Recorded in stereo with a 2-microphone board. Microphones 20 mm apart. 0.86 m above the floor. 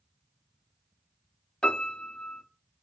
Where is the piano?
50° left (ahead or behind), 0.6 m.